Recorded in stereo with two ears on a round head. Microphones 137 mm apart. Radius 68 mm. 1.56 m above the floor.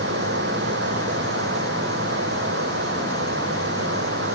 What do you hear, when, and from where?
0.0 s running water: 85° right